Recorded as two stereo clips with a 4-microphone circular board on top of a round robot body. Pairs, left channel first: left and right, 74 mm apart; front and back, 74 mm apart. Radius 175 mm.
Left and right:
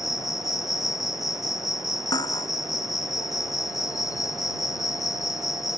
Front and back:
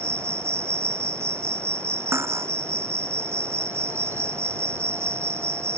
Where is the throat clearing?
I don't hear throat clearing.